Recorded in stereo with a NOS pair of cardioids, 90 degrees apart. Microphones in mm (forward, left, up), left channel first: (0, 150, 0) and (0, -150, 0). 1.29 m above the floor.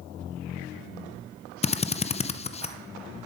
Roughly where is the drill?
Ahead.